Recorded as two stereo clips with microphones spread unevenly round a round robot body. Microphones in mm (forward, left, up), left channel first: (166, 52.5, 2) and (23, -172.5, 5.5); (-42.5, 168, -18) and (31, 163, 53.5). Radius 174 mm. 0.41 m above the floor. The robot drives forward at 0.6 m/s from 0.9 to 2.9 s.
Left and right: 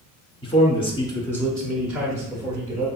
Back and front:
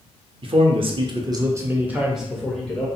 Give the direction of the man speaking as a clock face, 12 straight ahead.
10 o'clock.